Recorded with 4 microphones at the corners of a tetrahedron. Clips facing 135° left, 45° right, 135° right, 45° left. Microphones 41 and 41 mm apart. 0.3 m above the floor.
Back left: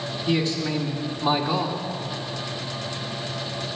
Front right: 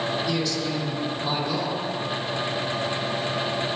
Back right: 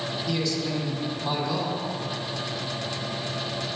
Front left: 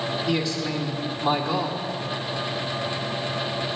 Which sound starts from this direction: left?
A man speaking, at 0.3 s.